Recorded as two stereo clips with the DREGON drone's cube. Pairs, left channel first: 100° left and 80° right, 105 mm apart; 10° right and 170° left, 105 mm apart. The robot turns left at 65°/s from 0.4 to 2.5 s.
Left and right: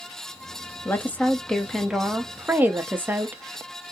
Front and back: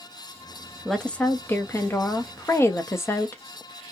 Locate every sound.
0.8 s a woman speaking: 70° left, 0.5 m; by 3.4 s 35° right, 0.5 m